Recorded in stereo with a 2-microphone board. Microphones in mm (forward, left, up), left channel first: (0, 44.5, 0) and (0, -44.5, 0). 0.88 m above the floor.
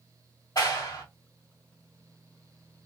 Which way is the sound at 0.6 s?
45° left (ahead or behind).